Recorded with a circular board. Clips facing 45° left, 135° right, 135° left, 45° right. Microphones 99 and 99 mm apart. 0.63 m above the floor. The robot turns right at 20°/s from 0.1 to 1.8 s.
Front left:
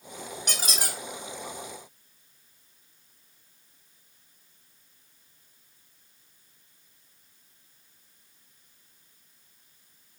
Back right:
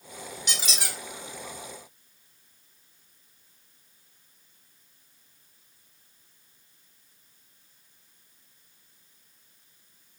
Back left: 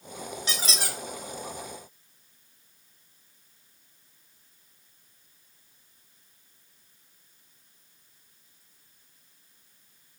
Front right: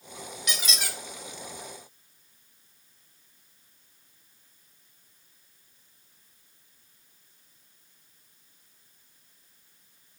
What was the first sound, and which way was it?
A squeak, 80° left.